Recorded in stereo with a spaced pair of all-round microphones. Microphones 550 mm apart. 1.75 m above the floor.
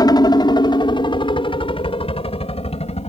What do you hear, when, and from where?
0.0 s a helicopter: 5° left (ahead or behind); by 3.1 s 10° left (ahead or behind)